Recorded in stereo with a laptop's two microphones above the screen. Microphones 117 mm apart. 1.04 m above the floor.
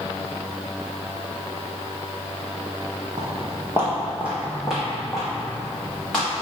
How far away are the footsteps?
About 1.5 m.